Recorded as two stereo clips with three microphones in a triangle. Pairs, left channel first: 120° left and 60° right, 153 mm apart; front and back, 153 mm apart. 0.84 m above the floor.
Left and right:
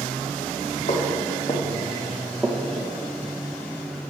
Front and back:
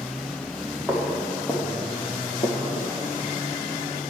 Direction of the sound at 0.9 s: 85° left.